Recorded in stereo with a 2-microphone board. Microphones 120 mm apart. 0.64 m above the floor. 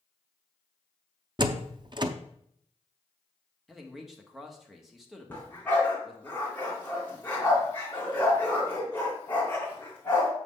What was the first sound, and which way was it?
A door slam, 40° right (ahead or behind).